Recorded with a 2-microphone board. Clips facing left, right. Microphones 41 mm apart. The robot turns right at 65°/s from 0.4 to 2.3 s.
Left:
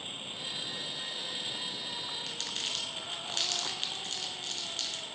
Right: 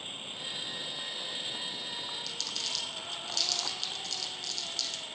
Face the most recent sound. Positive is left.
turn(degrees=40)  # may be behind; listen again after turning